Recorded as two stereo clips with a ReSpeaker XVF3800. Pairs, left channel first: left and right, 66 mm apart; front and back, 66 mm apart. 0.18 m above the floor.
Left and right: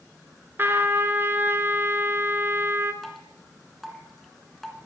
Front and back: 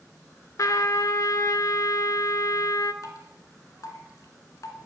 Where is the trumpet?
30° right, 0.5 m.